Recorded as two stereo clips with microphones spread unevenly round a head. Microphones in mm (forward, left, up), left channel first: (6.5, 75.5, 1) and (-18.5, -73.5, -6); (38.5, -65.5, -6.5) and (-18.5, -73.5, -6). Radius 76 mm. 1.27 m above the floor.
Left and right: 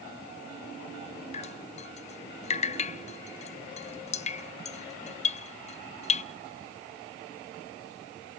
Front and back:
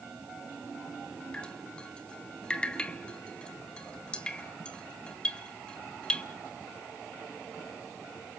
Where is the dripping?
80° left, 0.6 m.